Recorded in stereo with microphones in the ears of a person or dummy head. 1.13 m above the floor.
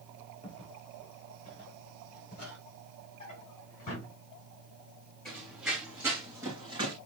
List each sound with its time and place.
0.4 s footsteps: 30° left (ahead or behind), 6 m; by 2.6 s 40° left (ahead or behind), 6 m
3.2 s a drawer: 35° left (ahead or behind), 5.5 m
5.2 s running footsteps: 5° right (ahead or behind), 4.5 m; by 7.0 s 30° right (ahead or behind), 3.5 m